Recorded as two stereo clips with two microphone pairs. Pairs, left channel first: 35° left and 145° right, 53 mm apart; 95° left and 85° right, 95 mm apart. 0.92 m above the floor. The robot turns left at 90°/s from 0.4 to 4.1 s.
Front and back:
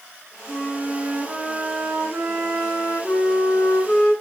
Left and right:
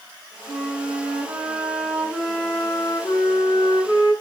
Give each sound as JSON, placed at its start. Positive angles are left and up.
{"t": 0.5, "sound": "a flute", "azimuth_deg": -5, "distance_m": 1.9}